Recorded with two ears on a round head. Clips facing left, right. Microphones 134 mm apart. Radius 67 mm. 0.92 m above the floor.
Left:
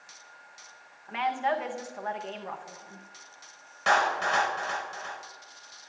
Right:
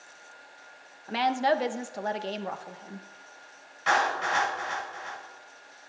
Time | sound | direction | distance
1.1 | a woman speaking | 40° right (ahead or behind) | 0.6 m
3.9 | a clap | 60° left (ahead or behind) | 4 m